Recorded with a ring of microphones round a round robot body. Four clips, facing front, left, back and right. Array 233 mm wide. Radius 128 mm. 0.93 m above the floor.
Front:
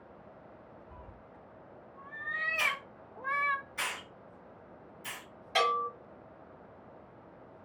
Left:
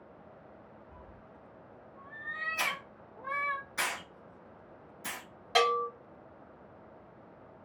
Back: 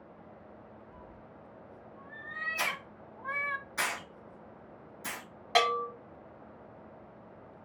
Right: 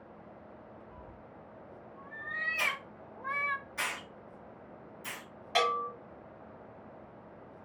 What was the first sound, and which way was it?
A cat meowing, 10° right.